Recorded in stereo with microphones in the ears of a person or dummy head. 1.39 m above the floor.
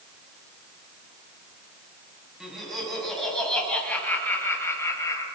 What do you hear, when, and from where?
2.4 s laughter: centre (ahead or behind), 10 m; by 5.2 s 20° left (ahead or behind), 7 m